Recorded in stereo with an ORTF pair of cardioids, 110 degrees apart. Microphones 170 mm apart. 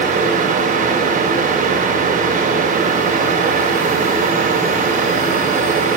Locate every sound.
0.0 s a fan: 55° right, 8.5 m